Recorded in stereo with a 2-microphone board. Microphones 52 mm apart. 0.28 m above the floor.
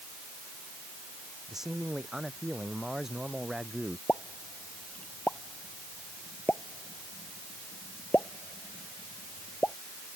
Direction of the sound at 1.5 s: 10° right (ahead or behind).